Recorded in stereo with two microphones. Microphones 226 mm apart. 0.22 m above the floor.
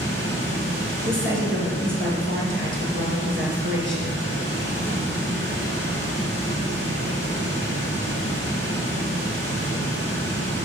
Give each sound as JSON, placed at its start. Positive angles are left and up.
{"t": 0.0, "sound": "running water", "side_deg": -60, "distance_m": 2.5}
{"t": 1.1, "sound": "a woman speaking", "side_deg": -60, "distance_m": 3.0}